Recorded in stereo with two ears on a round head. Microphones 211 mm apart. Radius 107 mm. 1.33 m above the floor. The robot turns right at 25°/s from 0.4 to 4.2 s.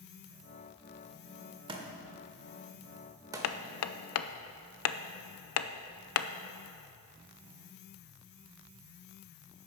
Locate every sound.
1.7 s a thud: 20° right (ahead or behind), 1.0 m; by 3.5 s 15° right (ahead or behind), 1.0 m
3.4 s hammering: 65° left (ahead or behind), 0.5 m; by 6.3 s 70° left (ahead or behind), 0.5 m